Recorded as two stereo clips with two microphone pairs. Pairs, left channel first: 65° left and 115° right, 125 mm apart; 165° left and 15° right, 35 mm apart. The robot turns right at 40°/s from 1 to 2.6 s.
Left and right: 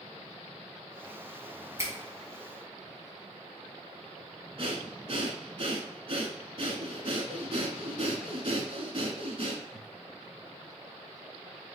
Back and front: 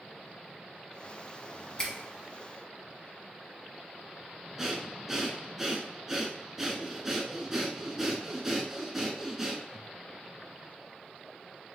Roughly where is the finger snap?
Behind right.